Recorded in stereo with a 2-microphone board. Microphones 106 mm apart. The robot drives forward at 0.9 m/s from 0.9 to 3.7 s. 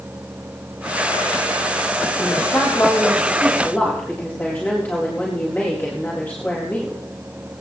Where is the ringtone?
I don't hear a ringtone.